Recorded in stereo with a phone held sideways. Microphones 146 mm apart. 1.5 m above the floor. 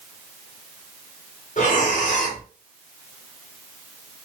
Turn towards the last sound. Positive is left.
turn(degrees=60)  # may be behind; listen again after turning